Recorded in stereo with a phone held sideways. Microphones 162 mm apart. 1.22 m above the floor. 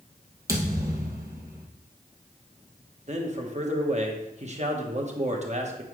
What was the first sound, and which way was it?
A thud, 20° right (ahead or behind).